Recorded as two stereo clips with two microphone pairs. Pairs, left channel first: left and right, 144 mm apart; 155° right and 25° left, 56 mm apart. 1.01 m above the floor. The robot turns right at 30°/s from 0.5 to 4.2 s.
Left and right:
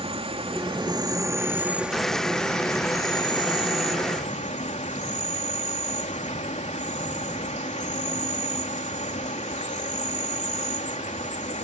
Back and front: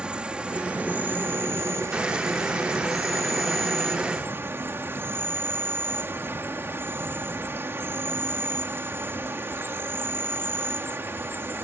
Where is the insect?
45° right; by 11.7 s 65° left.